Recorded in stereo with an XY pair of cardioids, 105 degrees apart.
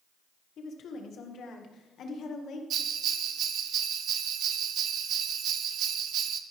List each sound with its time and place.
0.6 s a woman speaking: 60° left, 2 m
2.7 s a bell: 70° right, 1.0 m